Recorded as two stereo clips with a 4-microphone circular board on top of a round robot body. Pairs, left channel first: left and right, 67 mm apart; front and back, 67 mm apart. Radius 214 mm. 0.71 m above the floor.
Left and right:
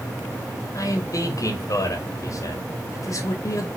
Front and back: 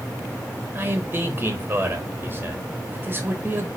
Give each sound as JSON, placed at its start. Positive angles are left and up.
{"t": 0.8, "sound": "a man speaking", "azimuth_deg": 120, "distance_m": 1.7}